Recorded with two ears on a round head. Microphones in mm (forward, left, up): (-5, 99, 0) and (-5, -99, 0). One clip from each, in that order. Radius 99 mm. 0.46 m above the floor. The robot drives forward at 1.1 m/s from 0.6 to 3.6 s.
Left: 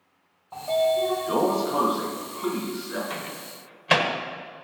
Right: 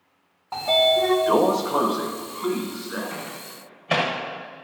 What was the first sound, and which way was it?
A sliding door, 55° right (ahead or behind).